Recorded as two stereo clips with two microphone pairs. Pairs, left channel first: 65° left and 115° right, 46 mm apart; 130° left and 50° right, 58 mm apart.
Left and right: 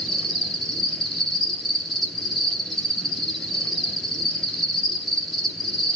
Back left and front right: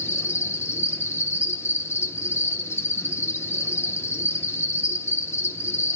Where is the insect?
150° left, 1.8 m.